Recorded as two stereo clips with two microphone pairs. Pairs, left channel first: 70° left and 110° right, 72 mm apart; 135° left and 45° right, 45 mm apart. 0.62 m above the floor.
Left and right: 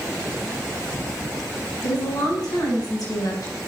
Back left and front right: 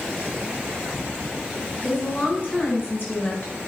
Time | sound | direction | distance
1.8 | a woman speaking | 90° left | 5 m